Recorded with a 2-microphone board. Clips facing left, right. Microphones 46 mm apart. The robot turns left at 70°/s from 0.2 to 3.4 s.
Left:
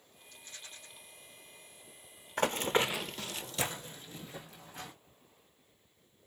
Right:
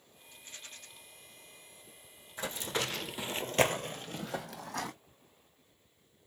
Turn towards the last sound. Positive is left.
turn(degrees=-75)  # may be behind; listen again after turning